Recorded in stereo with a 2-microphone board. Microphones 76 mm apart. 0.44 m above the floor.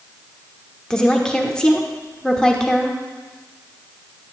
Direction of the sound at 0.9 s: 10° left (ahead or behind).